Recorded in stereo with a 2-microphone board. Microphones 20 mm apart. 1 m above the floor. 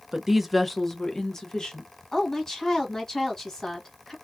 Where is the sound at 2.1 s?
25° left (ahead or behind), 1.2 m.